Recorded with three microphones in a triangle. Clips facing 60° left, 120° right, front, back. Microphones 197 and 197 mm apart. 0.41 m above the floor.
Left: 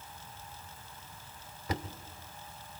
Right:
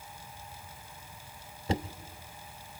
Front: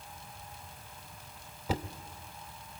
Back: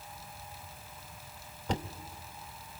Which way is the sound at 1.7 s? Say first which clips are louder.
Right 5 dB, even; 80° right.